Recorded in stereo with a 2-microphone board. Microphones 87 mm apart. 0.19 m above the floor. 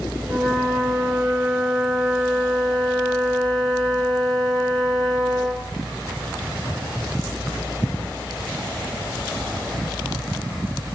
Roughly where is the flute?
Centre.